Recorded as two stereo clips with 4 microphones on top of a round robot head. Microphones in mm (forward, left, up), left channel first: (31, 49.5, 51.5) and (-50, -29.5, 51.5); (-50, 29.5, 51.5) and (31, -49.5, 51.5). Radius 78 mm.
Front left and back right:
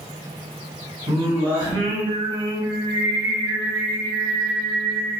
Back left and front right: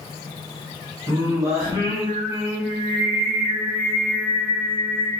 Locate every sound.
1.1 s singing: 100° right, 2 m